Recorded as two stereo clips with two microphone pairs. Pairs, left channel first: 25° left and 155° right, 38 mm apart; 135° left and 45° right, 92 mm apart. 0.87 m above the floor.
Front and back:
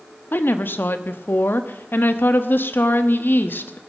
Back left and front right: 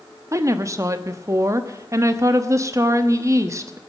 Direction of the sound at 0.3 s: 5° left.